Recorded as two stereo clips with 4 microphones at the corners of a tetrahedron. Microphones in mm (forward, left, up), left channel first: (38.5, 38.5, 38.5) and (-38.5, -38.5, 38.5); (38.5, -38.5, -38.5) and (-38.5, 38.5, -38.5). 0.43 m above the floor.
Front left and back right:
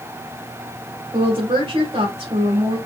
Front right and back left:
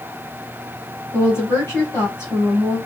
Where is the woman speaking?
110° right, 1.9 m.